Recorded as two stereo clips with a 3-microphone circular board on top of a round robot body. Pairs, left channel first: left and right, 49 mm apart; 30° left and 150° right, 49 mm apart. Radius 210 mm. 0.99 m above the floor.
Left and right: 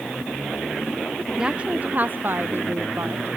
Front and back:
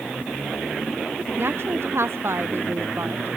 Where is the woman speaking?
160° right; by 3.4 s 115° right.